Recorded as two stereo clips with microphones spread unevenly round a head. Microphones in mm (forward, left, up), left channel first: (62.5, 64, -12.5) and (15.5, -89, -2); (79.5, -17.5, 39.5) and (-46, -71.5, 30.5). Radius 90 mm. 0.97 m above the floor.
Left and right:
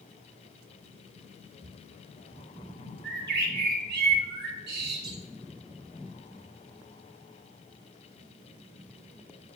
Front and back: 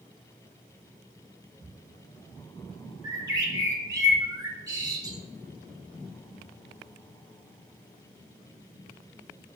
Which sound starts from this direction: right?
A bird, at 3.0 s.